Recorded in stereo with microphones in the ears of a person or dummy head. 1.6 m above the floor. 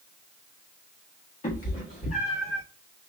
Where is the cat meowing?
25° left (ahead or behind), 1.1 m; by 2.6 s 55° left (ahead or behind), 1.8 m.